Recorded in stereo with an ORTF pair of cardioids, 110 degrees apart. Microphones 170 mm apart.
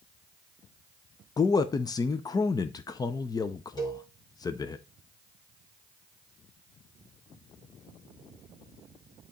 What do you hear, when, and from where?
1.4 s a man speaking: 25° left, 0.5 m
3.8 s a cowbell: 25° left, 1.8 m